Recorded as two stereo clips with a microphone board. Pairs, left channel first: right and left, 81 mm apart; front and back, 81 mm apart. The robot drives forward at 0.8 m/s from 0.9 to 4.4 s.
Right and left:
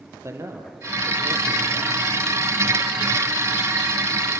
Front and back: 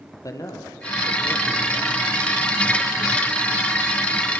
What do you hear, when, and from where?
0.2 s a man speaking: 40° left, 3 m; by 2.0 s 55° left, 2.5 m